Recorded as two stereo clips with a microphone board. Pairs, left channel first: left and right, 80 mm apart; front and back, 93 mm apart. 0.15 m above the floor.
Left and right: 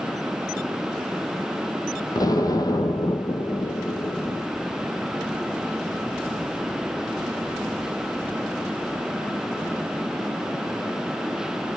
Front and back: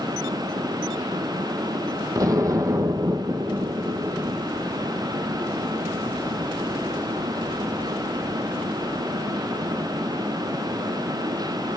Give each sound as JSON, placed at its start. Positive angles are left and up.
{"t": 2.1, "sound": "an explosion", "azimuth_deg": 130, "distance_m": 0.8}